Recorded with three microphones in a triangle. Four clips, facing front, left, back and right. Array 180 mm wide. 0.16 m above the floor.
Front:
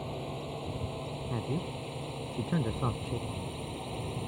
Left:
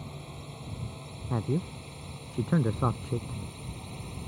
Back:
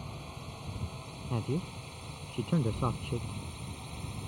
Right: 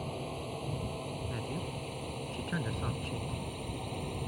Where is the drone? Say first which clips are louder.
Right 5 dB, front 7 dB; 35° right; by 4.3 s 30° right.